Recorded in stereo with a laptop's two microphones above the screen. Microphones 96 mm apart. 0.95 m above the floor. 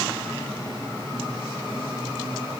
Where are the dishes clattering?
No dishes clattering in this recording.